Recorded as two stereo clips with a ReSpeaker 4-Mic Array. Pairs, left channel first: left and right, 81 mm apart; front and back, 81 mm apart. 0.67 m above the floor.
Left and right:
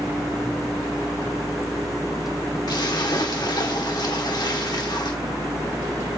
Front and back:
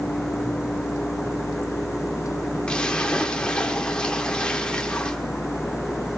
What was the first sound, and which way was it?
A splash, 75° left.